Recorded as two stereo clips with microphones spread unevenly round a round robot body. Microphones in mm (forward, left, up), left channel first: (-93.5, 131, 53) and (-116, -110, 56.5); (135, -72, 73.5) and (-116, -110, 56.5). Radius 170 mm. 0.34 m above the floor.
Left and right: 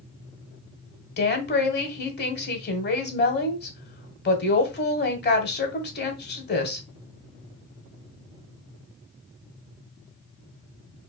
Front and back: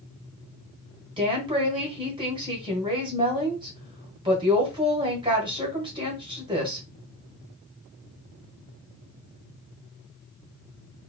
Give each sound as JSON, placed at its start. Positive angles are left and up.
{"t": 1.2, "sound": "a woman speaking", "azimuth_deg": 120, "distance_m": 1.4}